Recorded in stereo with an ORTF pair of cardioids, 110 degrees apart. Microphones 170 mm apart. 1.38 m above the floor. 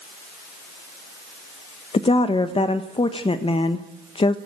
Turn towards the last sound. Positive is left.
turn(degrees=35)